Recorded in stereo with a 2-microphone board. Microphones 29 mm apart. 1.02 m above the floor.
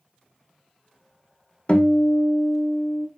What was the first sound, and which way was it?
A guitar, 35° left (ahead or behind).